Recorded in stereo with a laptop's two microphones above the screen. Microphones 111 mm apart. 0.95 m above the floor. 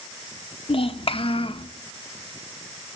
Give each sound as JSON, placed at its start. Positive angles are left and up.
{"t": 0.7, "sound": "a child speaking", "side_deg": 50, "distance_m": 0.6}